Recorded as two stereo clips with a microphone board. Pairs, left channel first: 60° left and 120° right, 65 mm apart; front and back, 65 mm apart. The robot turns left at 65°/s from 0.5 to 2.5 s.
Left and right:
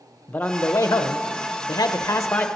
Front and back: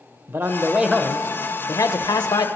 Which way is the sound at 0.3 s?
125° left.